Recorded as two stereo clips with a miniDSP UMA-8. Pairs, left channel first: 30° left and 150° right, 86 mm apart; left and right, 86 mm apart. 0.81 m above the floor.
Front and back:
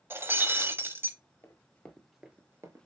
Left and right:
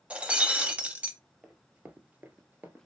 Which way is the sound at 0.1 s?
150° right.